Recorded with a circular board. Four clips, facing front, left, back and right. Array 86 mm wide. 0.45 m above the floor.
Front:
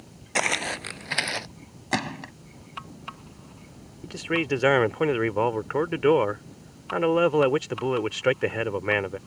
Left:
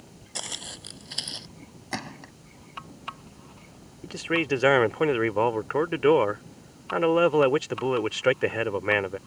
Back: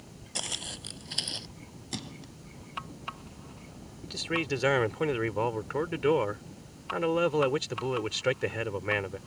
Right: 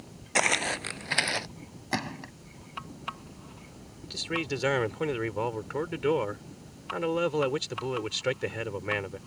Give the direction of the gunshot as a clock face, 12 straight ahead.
12 o'clock.